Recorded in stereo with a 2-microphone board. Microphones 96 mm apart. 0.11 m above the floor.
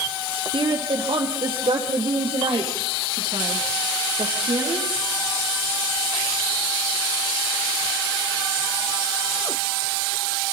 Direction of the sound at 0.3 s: 60° right (ahead or behind).